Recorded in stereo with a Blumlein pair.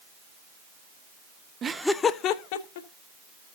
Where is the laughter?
25° right, 0.6 m; by 2.9 s 55° left, 1.4 m.